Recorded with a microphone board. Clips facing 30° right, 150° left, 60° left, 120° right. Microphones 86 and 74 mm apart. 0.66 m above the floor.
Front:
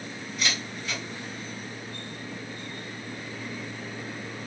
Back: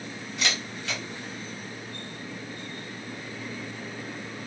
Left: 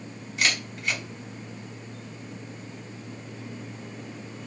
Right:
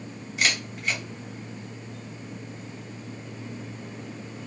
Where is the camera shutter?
155° left, 1.4 m.